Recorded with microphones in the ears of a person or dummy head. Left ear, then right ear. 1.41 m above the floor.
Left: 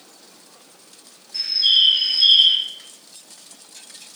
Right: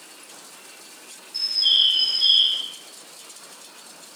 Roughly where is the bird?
Centre.